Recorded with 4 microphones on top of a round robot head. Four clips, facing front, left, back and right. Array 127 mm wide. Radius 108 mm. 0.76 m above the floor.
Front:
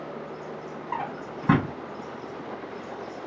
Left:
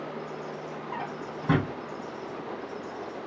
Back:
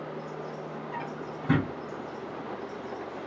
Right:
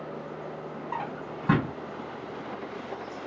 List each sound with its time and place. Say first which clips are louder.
0.9 s a drawer: right 2 dB, front 7 dB; 25° right, 3.5 m